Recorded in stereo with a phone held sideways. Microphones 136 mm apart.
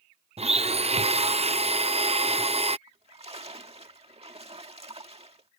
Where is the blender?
45° right (ahead or behind).